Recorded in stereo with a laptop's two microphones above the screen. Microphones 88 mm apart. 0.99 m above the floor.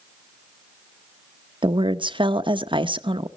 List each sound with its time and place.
1.6 s a woman speaking: 70° right (ahead or behind), 0.8 m